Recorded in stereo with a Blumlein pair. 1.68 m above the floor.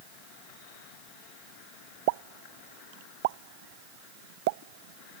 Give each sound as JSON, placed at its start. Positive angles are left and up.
{"t": 2.1, "sound": "a pop", "azimuth_deg": -50}